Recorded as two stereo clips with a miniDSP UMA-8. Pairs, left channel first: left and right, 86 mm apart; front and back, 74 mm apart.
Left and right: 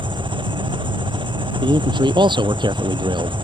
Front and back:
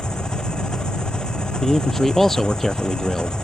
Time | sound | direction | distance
0.0 | an engine running | 80° right | ?
1.6 | a man speaking | 85° right | ?